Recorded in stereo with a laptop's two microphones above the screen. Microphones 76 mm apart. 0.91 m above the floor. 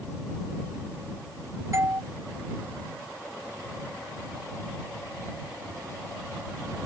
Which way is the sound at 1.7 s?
45° right (ahead or behind).